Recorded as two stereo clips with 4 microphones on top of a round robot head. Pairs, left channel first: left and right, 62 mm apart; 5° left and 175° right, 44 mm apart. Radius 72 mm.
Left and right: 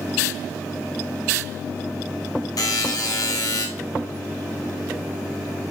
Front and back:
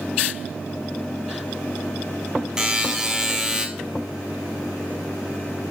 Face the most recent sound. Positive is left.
turn(degrees=105)